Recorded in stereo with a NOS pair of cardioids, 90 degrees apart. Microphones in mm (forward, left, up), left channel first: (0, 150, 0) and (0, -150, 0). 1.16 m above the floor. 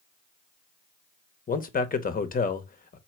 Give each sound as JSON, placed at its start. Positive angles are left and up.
{"t": 1.5, "sound": "a man speaking", "azimuth_deg": 30, "distance_m": 1.0}